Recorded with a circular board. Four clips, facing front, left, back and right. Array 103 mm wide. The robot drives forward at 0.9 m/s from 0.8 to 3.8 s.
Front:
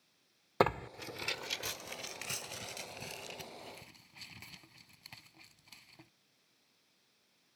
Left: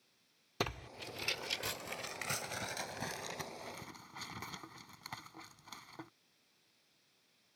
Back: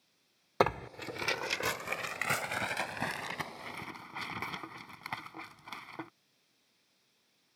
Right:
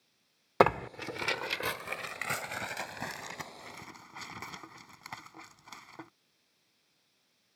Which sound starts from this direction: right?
Tearing paper, at 0.6 s.